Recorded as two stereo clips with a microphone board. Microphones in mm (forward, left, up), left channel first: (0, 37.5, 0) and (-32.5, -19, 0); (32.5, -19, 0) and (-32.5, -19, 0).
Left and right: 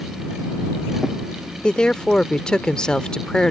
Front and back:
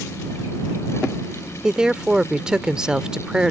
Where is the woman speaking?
120° left.